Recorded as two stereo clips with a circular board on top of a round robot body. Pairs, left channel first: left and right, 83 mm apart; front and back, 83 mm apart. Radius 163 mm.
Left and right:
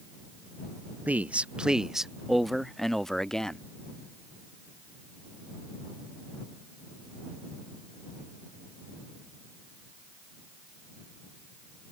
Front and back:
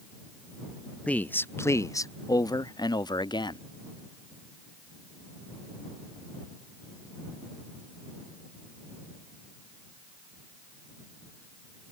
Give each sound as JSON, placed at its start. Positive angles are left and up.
{"t": 1.1, "sound": "a man speaking", "azimuth_deg": -50}